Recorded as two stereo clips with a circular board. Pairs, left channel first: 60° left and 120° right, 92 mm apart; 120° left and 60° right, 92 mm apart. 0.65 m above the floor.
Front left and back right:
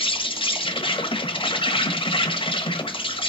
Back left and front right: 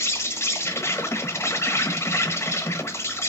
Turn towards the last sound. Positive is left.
turn(degrees=60)